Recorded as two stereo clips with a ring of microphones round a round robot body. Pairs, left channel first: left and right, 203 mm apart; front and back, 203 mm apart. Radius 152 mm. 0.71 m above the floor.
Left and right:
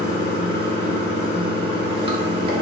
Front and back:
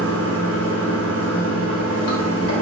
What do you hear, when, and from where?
0.0 s running water: 30° right, 1.0 m